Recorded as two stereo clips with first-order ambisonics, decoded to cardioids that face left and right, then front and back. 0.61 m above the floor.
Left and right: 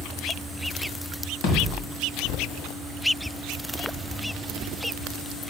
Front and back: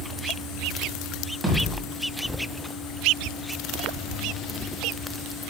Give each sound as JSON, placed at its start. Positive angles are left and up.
{"t": 1.4, "sound": "a thud", "azimuth_deg": 105, "distance_m": 2.0}